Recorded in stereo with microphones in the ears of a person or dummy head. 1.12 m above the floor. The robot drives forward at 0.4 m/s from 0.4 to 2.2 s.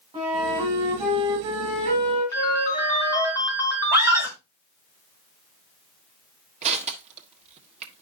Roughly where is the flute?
Right.